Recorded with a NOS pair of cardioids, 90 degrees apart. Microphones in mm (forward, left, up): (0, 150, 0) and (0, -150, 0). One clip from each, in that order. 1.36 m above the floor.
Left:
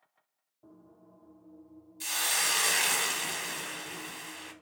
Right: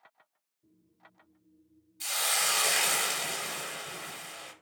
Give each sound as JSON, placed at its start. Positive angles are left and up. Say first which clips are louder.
{"t": 2.0, "sound": "a hiss", "louder": "even", "azimuth_deg": 0, "distance_m": 0.6}